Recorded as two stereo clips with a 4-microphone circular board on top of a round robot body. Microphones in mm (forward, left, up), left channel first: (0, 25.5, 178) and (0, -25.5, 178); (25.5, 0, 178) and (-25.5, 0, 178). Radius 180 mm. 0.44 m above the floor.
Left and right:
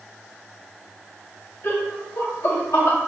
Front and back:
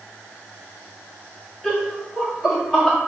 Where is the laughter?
90° left, 1.5 m; by 3.0 s 85° left, 2.5 m.